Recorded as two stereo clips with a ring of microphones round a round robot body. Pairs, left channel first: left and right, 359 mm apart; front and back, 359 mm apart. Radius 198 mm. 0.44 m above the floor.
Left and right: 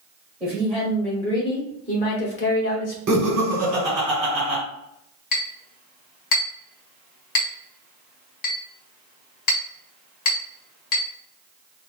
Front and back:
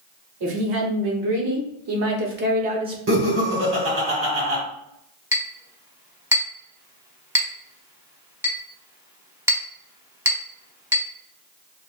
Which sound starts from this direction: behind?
A woman speaking, at 0.4 s.